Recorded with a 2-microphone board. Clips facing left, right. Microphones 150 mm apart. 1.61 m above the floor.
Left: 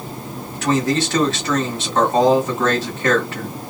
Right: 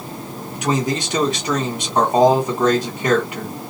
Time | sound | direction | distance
0.6 | a man speaking | 15° right (ahead or behind) | 1.4 m